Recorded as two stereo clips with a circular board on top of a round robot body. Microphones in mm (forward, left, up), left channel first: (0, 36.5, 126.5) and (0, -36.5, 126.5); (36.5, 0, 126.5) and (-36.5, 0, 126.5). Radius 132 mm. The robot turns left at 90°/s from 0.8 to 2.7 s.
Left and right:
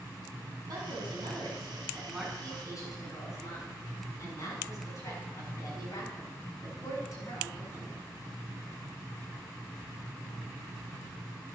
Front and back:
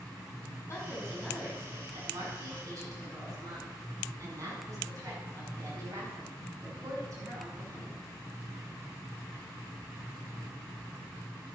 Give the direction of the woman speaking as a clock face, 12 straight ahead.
2 o'clock.